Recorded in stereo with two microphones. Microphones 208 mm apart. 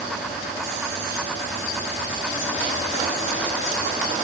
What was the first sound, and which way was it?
Only background noise.